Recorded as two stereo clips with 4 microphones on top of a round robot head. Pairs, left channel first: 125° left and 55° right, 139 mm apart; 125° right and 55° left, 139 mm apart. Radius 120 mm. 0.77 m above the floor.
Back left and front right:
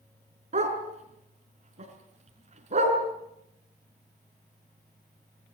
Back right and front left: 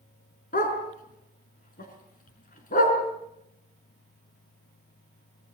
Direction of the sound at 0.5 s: 100° right.